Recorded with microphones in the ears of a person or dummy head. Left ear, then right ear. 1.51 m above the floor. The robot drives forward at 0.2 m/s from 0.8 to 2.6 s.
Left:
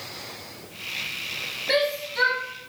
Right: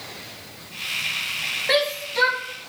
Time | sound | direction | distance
1.7 | a shout | 45° right (ahead or behind) | 1.5 m